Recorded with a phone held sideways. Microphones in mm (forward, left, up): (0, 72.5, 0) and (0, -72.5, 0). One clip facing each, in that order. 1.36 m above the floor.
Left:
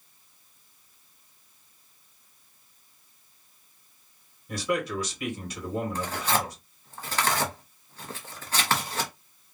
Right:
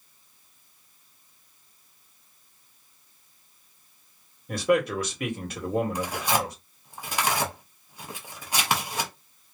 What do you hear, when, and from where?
4.5 s a man speaking: 60° right (ahead or behind), 1.4 m
6.0 s tearing paper: 15° right (ahead or behind), 0.8 m